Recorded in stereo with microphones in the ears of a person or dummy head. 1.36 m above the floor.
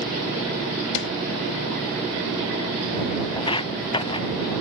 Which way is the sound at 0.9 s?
70° left (ahead or behind).